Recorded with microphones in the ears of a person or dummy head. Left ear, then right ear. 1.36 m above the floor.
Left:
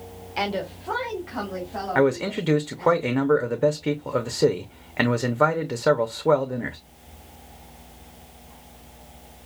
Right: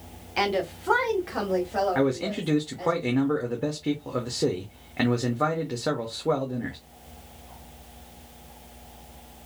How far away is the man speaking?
About 0.5 m.